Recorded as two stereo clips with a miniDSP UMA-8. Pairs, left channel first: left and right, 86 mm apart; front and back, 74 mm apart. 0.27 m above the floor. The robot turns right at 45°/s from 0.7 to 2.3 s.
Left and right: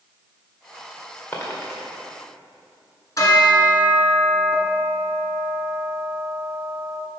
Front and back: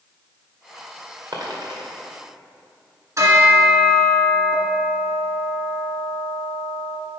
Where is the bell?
140° left, 1.7 m.